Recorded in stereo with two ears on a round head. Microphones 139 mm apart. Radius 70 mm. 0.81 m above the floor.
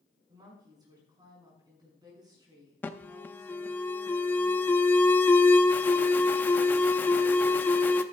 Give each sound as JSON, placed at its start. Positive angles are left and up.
{"t": 0.3, "sound": "a woman speaking", "side_deg": -30, "distance_m": 6.5}
{"t": 2.8, "sound": "an alarm", "side_deg": 10, "distance_m": 0.6}